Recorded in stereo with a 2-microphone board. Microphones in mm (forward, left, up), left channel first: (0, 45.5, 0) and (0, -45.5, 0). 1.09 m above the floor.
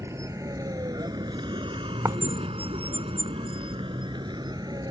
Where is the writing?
30° right (ahead or behind).